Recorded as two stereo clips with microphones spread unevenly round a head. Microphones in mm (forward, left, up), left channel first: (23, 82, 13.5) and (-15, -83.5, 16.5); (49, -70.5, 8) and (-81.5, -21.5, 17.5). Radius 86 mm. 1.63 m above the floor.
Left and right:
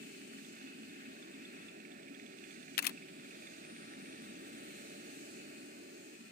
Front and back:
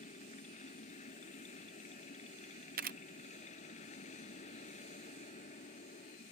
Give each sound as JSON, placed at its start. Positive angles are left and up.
{"t": 0.0, "sound": "a machine running", "azimuth_deg": -60}
{"t": 2.8, "sound": "a camera shutter", "azimuth_deg": 115}